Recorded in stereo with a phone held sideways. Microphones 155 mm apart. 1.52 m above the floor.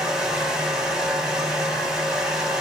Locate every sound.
0.0 s a fan: 5° right (ahead or behind), 0.7 m